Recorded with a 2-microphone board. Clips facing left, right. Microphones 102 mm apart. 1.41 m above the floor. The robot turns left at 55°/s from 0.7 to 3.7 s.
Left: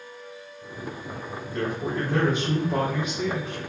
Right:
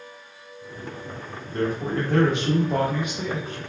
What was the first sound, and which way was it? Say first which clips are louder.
A man speaking: right 3 dB; 30° right.